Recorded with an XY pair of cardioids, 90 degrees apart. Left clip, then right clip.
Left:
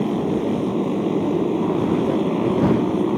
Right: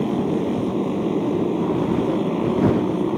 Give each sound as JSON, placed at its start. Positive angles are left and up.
{"t": 0.0, "sound": "a motorcycle", "azimuth_deg": 5}